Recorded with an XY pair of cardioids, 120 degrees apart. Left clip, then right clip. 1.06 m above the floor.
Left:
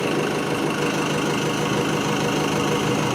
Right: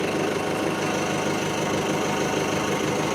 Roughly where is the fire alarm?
No fire alarm in this recording.